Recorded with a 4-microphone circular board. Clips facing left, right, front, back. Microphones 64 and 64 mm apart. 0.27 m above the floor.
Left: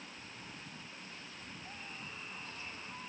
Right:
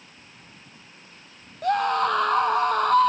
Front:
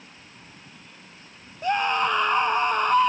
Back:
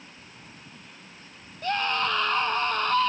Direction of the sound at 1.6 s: 75° right.